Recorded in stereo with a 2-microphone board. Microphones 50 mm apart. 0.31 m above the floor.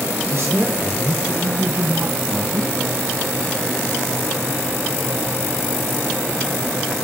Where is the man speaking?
55° right (ahead or behind), 2.5 m; by 2.8 s 60° right (ahead or behind), 4 m.